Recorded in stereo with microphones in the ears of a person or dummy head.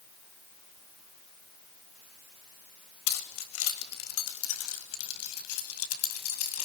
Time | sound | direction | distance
3.1 | keys jangling | 75° left (ahead or behind) | 4 m